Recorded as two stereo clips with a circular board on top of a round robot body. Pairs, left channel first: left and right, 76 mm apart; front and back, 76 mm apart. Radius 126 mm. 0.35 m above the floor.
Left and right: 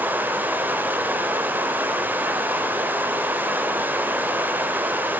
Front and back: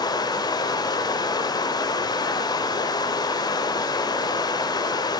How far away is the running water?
About 0.8 m.